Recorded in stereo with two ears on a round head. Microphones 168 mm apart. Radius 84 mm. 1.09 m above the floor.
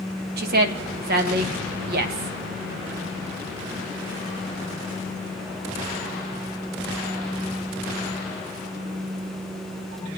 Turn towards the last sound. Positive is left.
turn(degrees=-55)  # may be behind; listen again after turning